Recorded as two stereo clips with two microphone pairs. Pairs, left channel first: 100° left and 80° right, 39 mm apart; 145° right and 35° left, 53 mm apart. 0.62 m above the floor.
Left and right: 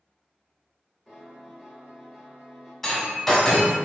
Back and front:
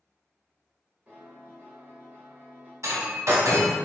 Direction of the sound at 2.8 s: 20° left.